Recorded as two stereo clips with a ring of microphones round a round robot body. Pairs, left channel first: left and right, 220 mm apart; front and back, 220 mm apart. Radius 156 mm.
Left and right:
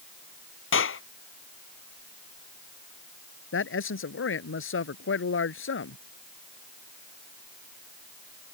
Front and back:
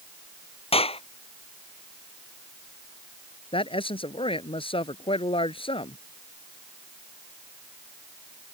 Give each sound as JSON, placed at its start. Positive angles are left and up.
{"t": 0.7, "sound": "a clap", "azimuth_deg": 65}
{"t": 3.5, "sound": "a man speaking", "azimuth_deg": 65}